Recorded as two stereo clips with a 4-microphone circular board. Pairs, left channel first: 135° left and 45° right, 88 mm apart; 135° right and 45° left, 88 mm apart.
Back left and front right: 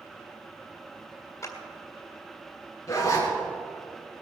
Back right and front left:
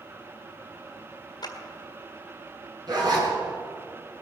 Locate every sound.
1.4 s a clap: 170° right, 1.9 m
2.9 s a zipper: 80° left, 4 m